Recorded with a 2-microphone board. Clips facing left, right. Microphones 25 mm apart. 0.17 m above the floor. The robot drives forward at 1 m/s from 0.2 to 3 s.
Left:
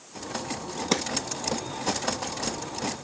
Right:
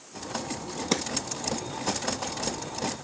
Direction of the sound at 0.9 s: 5° left (ahead or behind).